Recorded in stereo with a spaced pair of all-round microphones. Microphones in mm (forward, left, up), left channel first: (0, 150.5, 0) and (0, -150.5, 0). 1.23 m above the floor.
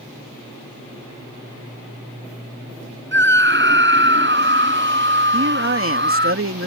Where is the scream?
35° right (ahead or behind).